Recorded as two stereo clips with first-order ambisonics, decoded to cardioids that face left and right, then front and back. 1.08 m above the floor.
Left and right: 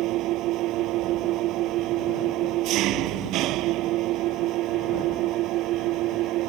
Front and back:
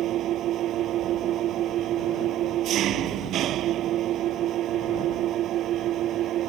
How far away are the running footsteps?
I don't hear running footsteps.